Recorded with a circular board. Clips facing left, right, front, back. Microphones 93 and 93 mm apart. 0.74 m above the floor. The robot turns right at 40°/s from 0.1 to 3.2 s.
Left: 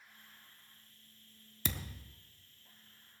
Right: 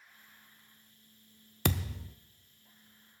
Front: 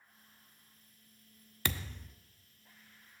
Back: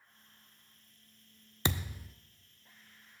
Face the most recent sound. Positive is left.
turn(degrees=-50)